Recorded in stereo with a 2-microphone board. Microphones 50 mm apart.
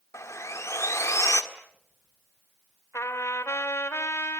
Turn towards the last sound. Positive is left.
turn(degrees=70)  # may be behind; listen again after turning